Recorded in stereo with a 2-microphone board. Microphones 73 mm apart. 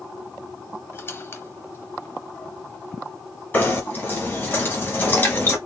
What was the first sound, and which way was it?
A squeak, 35° left (ahead or behind).